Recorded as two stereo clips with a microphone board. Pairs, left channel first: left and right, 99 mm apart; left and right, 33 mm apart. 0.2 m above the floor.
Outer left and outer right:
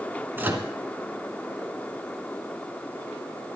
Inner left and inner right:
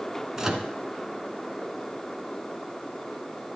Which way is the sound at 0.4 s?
20° right (ahead or behind).